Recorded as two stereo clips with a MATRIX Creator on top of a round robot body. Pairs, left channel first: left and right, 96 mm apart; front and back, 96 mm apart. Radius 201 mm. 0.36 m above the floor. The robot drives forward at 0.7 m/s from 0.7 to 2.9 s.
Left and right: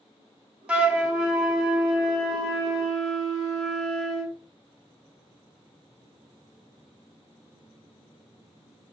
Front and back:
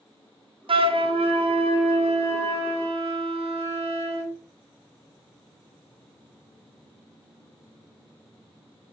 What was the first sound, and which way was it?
A flute, 165° right.